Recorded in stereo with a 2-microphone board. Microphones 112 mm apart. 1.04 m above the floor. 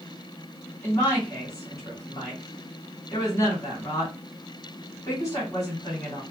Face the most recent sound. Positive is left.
turn(degrees=30)  # may be behind; listen again after turning